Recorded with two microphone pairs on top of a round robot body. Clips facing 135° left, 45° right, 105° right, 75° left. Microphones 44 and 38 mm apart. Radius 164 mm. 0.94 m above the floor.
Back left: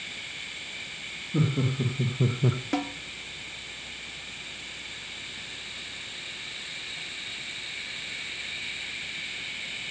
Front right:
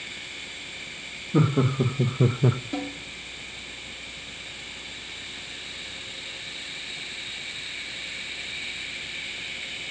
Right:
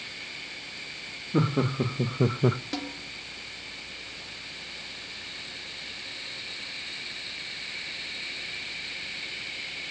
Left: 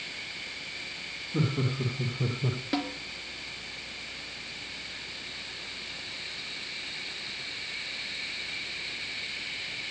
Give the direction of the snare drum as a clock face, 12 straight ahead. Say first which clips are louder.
Back left 2 dB, left 3 dB; 7 o'clock.